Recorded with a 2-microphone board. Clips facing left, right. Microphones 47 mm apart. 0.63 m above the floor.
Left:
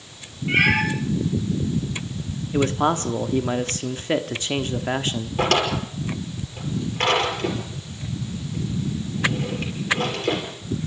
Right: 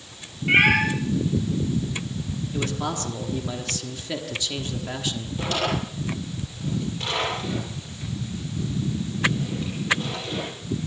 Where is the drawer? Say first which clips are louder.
Left 5 dB; 65° left (ahead or behind), 6 m.